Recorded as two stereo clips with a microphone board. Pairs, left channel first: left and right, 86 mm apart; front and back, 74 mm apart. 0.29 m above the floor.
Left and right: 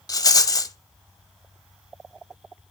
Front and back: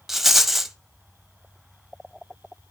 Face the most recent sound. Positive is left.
turn(degrees=95)